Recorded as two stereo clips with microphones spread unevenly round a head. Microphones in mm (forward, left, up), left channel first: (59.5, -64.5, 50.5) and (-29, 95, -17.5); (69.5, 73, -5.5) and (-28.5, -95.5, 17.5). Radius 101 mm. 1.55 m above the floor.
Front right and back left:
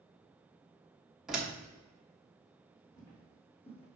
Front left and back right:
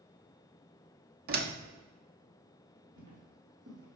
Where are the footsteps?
115° right, 2.5 m; by 4.0 s 100° right, 3 m.